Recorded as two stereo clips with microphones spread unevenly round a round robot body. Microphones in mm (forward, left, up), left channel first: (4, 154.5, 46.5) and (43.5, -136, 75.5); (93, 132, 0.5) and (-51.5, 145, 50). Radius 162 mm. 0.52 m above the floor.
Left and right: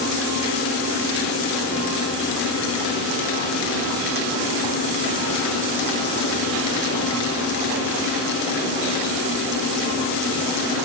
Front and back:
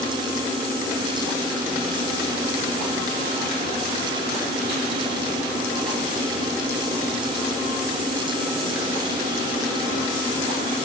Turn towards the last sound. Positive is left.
No sound to turn to.